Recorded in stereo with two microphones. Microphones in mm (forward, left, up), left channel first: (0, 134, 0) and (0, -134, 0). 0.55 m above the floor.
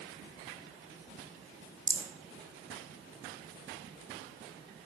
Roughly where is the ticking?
I don't hear ticking.